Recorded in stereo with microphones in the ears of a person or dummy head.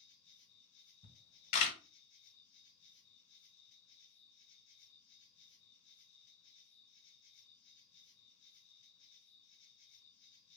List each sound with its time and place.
0.0 s an insect: 65° left (ahead or behind), 1.5 m
1.0 s a camera shutter: 60° left (ahead or behind), 1.6 m